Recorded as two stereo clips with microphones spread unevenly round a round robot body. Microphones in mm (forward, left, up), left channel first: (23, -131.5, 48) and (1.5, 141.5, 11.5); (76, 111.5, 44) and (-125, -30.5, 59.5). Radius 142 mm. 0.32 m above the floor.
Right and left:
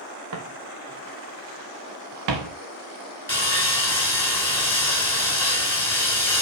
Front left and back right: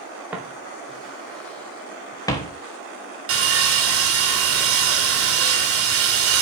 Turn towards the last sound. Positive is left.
turn(degrees=-170)